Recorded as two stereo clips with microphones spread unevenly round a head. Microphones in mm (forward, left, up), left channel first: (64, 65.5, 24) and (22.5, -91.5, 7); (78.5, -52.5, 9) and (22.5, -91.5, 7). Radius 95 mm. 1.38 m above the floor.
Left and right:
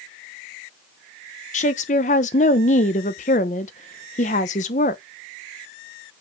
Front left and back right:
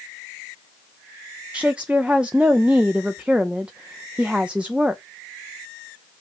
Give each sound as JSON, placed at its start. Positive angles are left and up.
{"t": 1.5, "sound": "a woman speaking", "azimuth_deg": 130, "distance_m": 0.9}